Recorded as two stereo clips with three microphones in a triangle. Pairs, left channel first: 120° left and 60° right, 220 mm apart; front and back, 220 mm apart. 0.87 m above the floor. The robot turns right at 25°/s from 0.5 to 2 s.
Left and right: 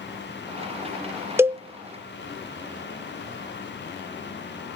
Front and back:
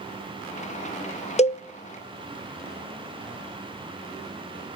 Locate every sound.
1.4 s a cowbell: 10° left, 0.5 m; by 1.6 s 15° left, 0.5 m